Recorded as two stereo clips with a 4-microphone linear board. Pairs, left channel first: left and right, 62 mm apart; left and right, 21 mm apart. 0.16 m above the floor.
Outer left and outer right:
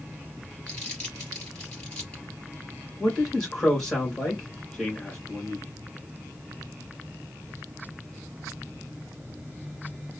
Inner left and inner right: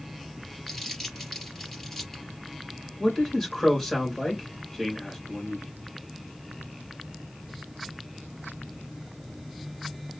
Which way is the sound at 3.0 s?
5° left (ahead or behind).